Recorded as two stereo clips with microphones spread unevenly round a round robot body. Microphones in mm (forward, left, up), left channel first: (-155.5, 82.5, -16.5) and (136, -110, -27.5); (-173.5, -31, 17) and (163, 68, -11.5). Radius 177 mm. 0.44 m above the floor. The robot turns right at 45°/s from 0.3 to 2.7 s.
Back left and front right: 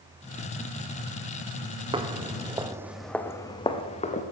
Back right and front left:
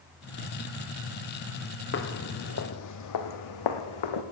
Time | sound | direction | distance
1.9 | footsteps | 110° right | 0.8 m